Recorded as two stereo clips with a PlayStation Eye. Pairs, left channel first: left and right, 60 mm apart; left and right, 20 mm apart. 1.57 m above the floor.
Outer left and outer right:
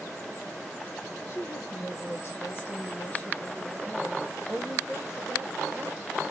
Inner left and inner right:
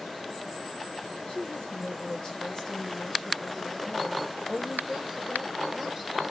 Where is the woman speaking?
60° left (ahead or behind), 3.5 m; by 6.2 s 20° right (ahead or behind), 4 m.